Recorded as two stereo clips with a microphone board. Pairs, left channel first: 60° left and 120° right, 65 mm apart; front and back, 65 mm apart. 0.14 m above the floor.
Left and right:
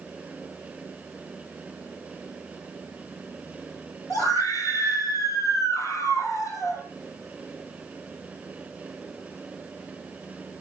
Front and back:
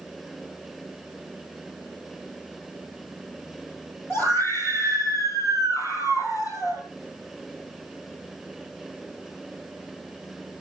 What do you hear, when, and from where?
4.1 s a scream: 45° left, 3 m; by 6.8 s 20° left, 4.5 m